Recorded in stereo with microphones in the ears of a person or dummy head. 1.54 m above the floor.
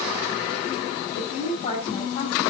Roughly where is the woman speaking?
Left.